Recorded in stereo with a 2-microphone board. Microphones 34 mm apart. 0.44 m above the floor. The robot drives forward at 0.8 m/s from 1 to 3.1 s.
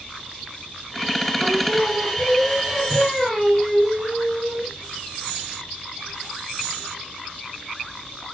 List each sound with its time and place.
1.4 s singing: centre (ahead or behind), 1.3 m